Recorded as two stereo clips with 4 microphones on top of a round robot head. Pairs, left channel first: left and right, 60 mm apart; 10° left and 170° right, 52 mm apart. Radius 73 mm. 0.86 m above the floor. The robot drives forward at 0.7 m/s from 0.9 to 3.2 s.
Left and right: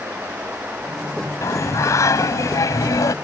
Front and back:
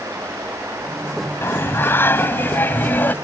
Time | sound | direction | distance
1.4 | singing | 55° left | ?